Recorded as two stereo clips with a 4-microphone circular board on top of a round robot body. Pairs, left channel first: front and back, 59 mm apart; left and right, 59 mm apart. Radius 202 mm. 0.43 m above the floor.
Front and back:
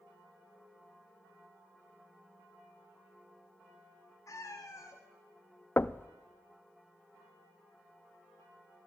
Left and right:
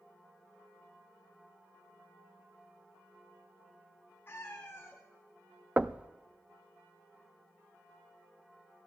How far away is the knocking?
About 0.6 m.